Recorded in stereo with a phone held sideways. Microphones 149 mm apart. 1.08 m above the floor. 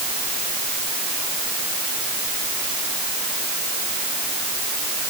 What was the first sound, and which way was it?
Only background noise.